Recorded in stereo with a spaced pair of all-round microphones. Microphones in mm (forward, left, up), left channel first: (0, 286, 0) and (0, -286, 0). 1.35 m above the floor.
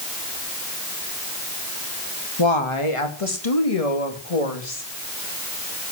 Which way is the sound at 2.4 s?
50° left (ahead or behind).